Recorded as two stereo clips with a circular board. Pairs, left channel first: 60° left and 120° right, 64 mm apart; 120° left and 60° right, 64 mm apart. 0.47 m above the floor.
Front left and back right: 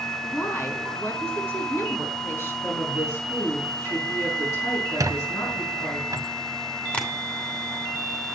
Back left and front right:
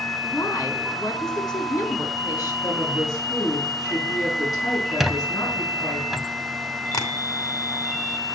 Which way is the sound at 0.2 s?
110° left.